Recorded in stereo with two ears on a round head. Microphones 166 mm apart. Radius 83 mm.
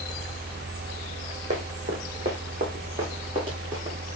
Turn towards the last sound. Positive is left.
turn(degrees=-30)  # may be behind; listen again after turning